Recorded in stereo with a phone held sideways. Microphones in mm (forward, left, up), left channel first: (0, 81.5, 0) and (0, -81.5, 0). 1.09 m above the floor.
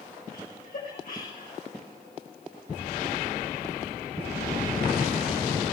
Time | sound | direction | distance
0.3 | laughter | 60° left (ahead or behind) | 7.5 m